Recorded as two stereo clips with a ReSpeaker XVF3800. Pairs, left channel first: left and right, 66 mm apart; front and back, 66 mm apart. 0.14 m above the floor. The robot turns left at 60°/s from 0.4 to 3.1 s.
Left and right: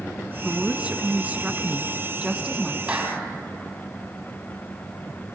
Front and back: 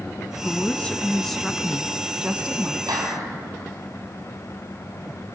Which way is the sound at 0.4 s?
25° right.